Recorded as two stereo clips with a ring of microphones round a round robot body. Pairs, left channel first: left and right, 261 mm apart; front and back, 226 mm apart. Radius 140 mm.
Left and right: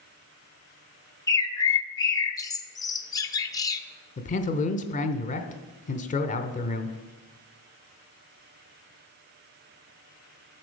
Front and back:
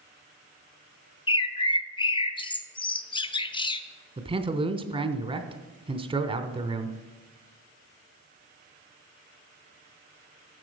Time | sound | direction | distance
1.3 | a bird | 35° left | 0.7 m
4.2 | a man speaking | 130° left | 0.9 m